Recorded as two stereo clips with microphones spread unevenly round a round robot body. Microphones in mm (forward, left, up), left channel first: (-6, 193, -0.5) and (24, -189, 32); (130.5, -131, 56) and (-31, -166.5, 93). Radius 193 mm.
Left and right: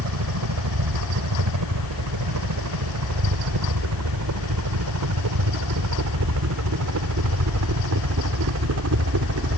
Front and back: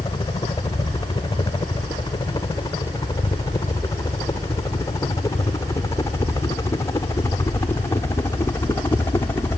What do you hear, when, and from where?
0.0 s a helicopter: 45° right